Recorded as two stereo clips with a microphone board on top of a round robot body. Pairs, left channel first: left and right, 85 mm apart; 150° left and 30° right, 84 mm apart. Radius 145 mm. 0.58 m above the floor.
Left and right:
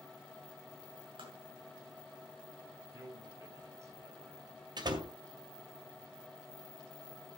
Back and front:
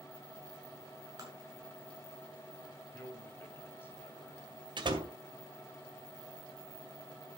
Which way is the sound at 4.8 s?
55° right.